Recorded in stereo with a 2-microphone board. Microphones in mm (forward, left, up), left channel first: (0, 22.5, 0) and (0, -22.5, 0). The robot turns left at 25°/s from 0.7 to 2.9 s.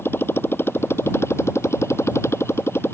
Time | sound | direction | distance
0.0 | a motorcycle | 120° left | ?